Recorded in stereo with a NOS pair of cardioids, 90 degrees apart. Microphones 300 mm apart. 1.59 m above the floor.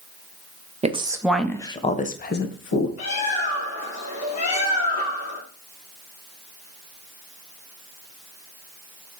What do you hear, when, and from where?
0.8 s a woman speaking: 20° right, 1.0 m; by 2.9 s 45° left, 1.6 m
3.0 s a bird: 55° left, 3 m